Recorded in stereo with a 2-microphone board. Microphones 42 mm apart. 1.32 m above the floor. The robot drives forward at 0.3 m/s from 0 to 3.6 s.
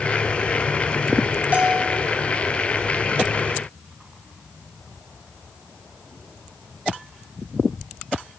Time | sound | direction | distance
1.5 | a bell | 35° right (ahead or behind) | 2.5 m